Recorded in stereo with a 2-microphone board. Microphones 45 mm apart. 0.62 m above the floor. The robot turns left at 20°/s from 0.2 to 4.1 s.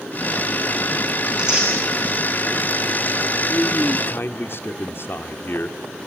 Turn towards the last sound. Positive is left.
turn(degrees=55)  # may be behind; listen again after turning